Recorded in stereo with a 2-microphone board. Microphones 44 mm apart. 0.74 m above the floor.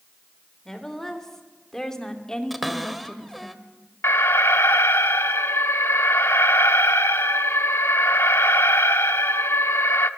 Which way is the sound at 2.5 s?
Centre (ahead or behind).